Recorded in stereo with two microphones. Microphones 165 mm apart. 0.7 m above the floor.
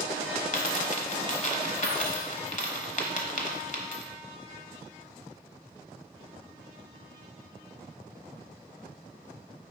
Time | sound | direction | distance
0.5 | a dropped coin | 50° left (ahead or behind) | 1.1 m